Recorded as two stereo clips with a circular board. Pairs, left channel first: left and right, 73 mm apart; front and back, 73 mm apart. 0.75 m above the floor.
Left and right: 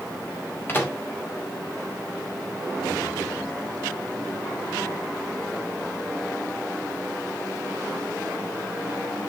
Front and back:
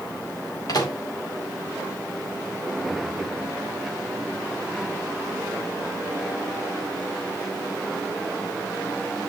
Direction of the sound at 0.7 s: 30° left.